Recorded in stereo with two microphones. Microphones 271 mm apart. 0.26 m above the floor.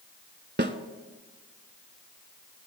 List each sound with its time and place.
0.6 s a snare drum: 40° right (ahead or behind), 0.8 m